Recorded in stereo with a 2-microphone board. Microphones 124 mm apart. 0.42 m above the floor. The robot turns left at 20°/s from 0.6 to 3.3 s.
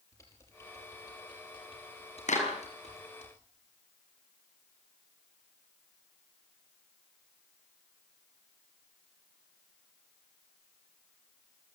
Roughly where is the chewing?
No chewing in this recording.